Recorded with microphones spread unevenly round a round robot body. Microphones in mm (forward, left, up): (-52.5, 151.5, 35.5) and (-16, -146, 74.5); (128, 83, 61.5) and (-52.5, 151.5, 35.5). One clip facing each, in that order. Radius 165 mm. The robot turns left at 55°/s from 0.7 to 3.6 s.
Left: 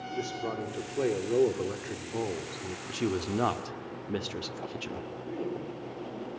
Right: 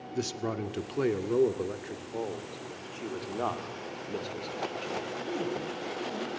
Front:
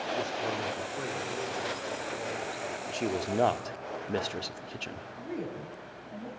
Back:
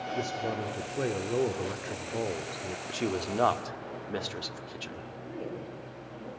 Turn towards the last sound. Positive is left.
turn(degrees=-30)